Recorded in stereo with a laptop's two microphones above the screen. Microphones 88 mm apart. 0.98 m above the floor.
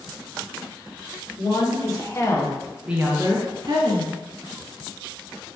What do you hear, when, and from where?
1.4 s a woman speaking: 55° left (ahead or behind), 1.8 m; by 4.1 s 65° right (ahead or behind), 1.5 m